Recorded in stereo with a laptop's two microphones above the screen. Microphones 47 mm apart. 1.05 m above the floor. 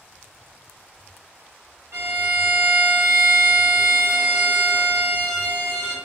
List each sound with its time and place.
1.9 s a violin: 60° right (ahead or behind), 1.0 m